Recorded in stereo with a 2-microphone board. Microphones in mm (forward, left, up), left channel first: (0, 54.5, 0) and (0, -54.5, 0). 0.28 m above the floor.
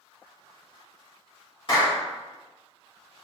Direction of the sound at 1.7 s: 45° left (ahead or behind).